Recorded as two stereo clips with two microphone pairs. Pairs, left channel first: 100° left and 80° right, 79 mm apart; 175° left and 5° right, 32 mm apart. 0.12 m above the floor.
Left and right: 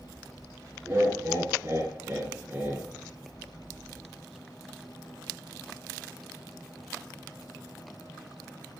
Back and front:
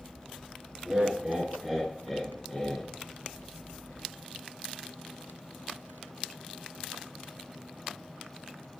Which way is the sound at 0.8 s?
55° right.